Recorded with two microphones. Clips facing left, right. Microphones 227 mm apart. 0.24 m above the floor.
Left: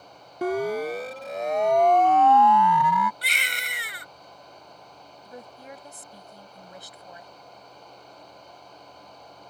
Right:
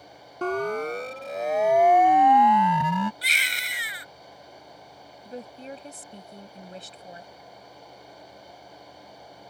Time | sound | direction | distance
0.4 | a siren | 10° left (ahead or behind) | ?
3.2 | a baby crying | 60° left (ahead or behind) | ?
5.2 | a woman speaking | 25° right (ahead or behind) | ?